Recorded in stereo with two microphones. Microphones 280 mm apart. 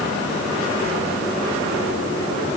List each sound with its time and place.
Only background noise.